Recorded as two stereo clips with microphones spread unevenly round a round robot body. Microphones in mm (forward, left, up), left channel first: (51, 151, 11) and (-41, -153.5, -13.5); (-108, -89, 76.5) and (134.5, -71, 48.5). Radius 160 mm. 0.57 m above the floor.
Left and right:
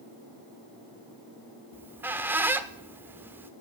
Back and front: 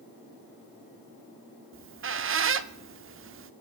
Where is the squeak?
25° right, 0.8 m.